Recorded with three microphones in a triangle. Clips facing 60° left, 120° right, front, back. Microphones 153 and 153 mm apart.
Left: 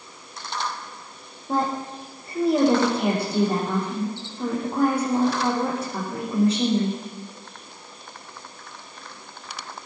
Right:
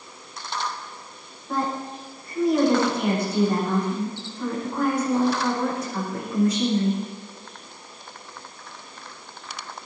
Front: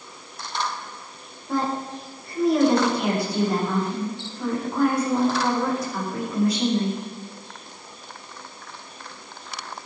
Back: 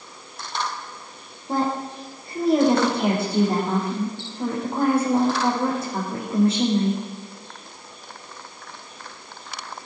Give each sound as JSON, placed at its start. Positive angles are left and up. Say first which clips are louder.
{"t": 1.5, "sound": "a woman speaking", "louder": "left 2 dB, back 1 dB", "azimuth_deg": 120, "distance_m": 8.5}